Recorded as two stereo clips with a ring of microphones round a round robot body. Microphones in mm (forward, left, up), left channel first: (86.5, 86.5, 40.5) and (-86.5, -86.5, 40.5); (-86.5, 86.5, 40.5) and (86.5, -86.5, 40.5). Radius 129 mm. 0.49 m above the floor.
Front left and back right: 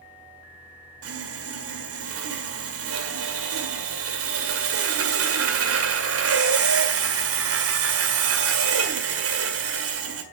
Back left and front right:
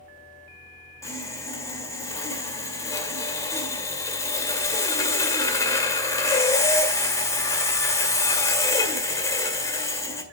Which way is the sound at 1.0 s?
150° right.